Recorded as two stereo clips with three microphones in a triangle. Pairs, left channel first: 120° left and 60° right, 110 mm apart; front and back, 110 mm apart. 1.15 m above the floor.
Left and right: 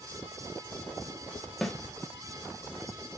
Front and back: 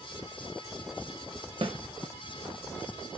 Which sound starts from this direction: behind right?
A snare drum, at 1.6 s.